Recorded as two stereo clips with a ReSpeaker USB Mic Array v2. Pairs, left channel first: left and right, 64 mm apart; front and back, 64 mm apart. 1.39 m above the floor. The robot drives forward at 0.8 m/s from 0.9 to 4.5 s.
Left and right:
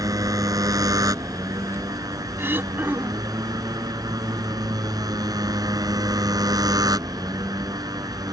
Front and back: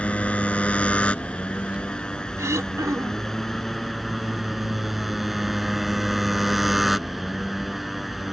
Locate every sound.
0.0 s a motorcycle: 70° right; by 8.3 s 90° right
2.4 s throat clearing: 140° right; by 3.4 s 150° right